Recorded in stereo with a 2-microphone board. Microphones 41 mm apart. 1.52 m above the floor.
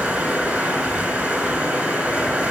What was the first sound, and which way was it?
Running water, 30° right (ahead or behind).